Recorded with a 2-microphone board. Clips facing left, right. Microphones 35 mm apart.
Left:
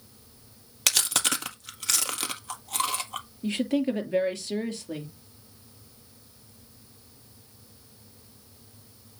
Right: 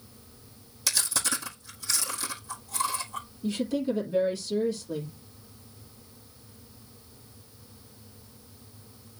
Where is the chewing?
65° left (ahead or behind), 1.5 m.